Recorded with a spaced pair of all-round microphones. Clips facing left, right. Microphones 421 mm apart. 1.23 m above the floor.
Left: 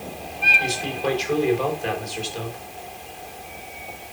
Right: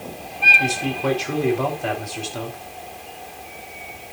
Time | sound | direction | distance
0.6 | a man speaking | 65° right (ahead or behind) | 4 m